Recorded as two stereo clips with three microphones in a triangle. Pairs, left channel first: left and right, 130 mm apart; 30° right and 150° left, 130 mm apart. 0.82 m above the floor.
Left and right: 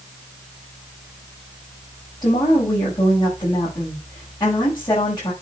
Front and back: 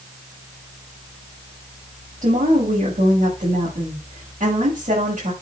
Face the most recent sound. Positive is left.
turn(degrees=150)